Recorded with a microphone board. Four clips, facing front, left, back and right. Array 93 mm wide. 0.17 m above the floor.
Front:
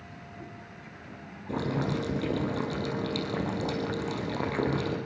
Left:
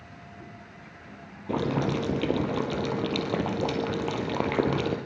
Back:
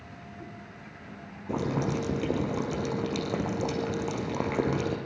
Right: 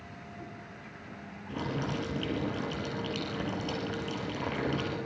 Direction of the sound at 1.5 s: 110° left.